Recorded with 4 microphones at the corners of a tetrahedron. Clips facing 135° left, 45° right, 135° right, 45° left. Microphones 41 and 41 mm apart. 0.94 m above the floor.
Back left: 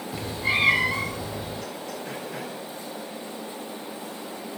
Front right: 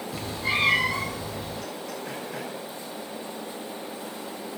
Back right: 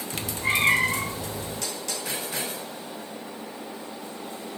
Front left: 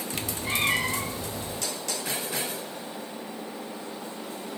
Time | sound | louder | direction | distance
0.1 | a cat meowing | back left 2 dB, back right 5 dB | 155° right | 0.9 m